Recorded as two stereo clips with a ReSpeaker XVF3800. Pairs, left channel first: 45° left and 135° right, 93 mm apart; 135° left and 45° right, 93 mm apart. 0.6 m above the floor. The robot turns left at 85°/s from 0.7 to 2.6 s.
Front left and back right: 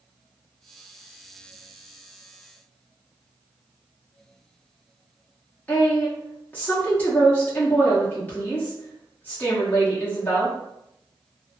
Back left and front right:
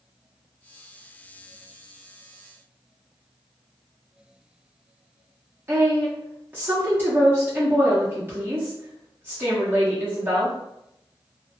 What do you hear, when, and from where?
5.7 s a woman speaking: 5° right, 0.9 m